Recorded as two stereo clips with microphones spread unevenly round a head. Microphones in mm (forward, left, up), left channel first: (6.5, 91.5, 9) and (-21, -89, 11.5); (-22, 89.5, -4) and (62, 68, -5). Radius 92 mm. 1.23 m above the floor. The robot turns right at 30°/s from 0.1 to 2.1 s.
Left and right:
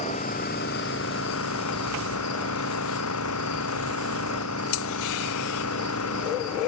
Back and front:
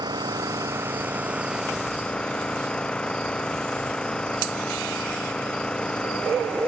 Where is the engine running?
25° left; by 6.7 s 85° left.